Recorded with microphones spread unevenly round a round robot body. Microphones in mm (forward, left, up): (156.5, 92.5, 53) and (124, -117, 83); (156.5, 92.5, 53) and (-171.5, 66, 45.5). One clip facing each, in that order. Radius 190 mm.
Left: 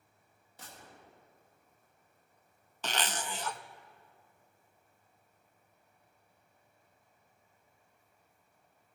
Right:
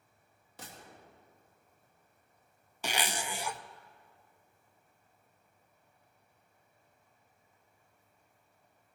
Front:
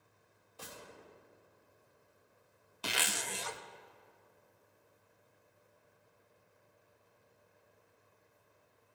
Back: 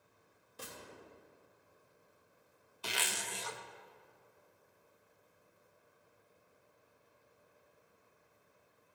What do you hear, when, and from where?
0.6 s a gunshot: 105° right, 2.5 m
2.8 s a zipper: 15° right, 0.7 m